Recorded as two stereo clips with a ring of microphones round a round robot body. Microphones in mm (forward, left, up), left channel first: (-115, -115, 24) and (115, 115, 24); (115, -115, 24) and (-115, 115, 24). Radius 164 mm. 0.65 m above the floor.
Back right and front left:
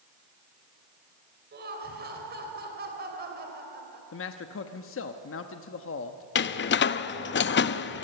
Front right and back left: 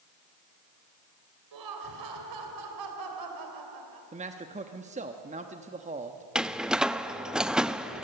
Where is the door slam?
140° right, 0.6 m.